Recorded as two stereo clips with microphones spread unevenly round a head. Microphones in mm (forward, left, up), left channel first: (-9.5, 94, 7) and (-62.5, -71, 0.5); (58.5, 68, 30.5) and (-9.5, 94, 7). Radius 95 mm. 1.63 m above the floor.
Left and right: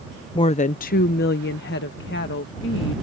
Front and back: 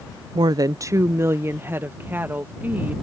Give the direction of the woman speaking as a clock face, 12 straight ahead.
8 o'clock.